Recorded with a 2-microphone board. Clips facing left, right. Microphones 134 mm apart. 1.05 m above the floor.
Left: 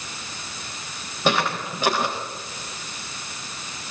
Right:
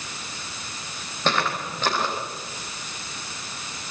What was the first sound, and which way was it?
Footsteps, 10° left (ahead or behind).